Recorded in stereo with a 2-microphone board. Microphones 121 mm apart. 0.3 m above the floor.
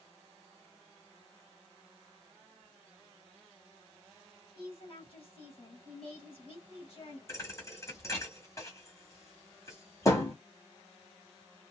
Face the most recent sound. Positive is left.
turn(degrees=25)  # may be behind; listen again after turning